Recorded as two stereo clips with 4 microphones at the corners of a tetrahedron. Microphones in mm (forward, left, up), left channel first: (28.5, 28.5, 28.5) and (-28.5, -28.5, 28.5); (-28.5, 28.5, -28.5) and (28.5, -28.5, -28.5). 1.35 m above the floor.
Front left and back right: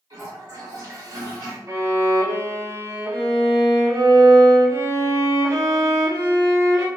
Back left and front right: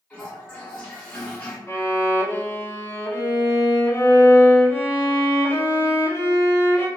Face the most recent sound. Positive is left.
turn(degrees=-170)